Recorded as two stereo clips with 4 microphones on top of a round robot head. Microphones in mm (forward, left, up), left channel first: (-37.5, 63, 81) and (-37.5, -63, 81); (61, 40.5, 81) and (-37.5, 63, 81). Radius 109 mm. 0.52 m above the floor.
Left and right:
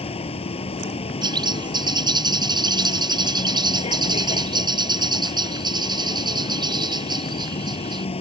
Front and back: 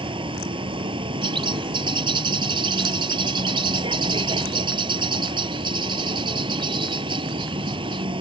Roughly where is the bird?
Behind right.